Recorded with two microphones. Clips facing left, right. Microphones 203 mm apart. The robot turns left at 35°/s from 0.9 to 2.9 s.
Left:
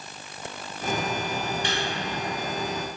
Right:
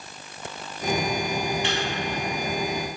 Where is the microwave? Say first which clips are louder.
Right 2 dB; 40° left (ahead or behind), 1.7 m; by 1.9 s 35° left (ahead or behind), 1.7 m.